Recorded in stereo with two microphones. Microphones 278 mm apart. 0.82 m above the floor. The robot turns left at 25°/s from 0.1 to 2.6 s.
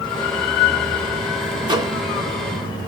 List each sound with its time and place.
1.6 s a microwave: 20° right (ahead or behind), 0.6 m; by 2.0 s 10° right (ahead or behind), 0.6 m